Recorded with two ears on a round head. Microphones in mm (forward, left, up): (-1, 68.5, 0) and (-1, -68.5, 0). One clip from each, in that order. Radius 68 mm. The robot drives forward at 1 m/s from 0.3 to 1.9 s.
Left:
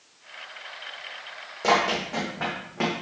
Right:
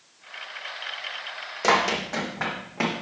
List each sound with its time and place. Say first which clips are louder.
1.6 s running footsteps: right 1 dB; 45° right (ahead or behind), 3 m; by 2.9 s 20° right (ahead or behind), 3.5 m